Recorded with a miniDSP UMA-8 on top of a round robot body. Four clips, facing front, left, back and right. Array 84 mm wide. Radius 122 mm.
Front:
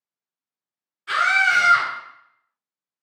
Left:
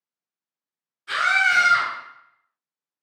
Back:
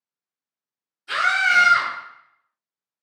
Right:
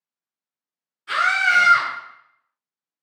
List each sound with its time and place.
1.1 s a scream: 5° right, 1.8 m